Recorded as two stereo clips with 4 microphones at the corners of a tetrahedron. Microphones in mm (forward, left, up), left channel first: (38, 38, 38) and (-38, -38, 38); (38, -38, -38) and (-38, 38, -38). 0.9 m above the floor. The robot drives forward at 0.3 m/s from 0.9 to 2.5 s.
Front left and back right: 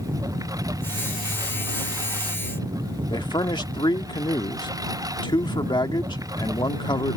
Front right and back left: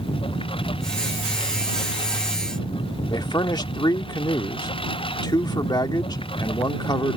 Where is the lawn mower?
80° right.